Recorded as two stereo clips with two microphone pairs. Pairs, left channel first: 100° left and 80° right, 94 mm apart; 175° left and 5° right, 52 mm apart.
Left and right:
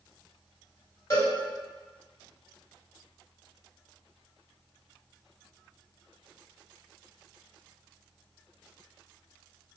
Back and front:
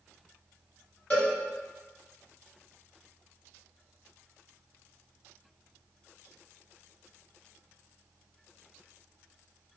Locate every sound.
1.1 s a cowbell: 135° left, 1.9 m